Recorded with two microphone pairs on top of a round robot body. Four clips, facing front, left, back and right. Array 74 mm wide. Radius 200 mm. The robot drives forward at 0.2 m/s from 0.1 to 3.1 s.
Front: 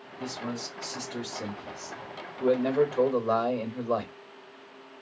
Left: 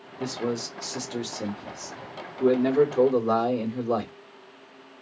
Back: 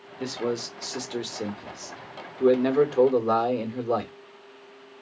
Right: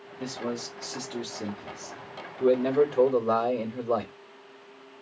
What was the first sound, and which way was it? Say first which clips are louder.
A man speaking: left 4 dB, back 6 dB; 165° left.